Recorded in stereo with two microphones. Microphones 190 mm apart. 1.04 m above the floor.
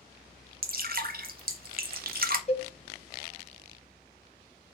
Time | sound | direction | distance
0.6 | dripping | 55° right (ahead or behind) | 0.6 m
2.5 | a cowbell | 35° left (ahead or behind) | 0.7 m